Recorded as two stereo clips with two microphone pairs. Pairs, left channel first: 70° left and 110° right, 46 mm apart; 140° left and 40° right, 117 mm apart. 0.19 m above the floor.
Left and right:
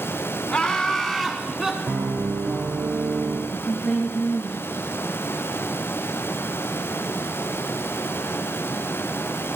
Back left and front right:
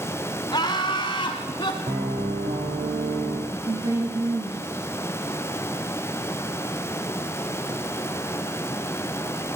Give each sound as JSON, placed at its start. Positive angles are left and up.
{"t": 0.5, "sound": "laughter", "azimuth_deg": 120, "distance_m": 1.5}
{"t": 1.9, "sound": "a piano", "azimuth_deg": -60, "distance_m": 4.5}
{"t": 3.5, "sound": "a woman speaking", "azimuth_deg": 15, "distance_m": 10.0}